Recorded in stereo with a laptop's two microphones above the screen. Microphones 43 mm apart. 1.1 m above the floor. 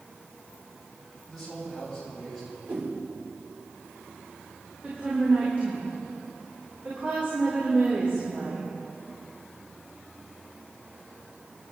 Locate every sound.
1.3 s a man speaking: 5° right (ahead or behind), 6 m
2.7 s a whoosh: 55° right (ahead or behind), 3 m
4.8 s a woman speaking: 40° right (ahead or behind), 4 m